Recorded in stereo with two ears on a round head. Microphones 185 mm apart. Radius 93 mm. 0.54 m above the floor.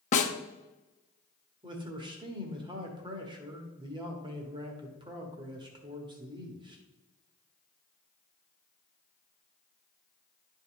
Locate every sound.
0.1 s a snare drum: 35° left (ahead or behind), 0.9 m
1.6 s a man speaking: 25° right (ahead or behind), 1.4 m